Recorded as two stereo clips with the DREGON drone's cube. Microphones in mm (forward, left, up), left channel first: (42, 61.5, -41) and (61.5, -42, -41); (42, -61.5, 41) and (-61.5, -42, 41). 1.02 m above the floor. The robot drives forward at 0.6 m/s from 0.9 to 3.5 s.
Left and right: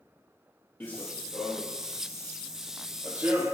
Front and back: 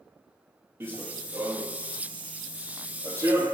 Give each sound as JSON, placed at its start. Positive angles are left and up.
{"t": 0.8, "sound": "running footsteps", "azimuth_deg": 150, "distance_m": 1.0}